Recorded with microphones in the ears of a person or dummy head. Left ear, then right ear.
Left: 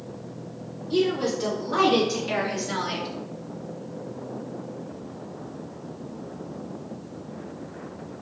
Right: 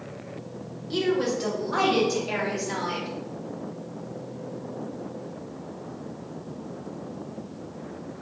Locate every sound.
0.9 s a woman speaking: 10° right (ahead or behind), 2.0 m; by 3.1 s 30° left (ahead or behind), 1.4 m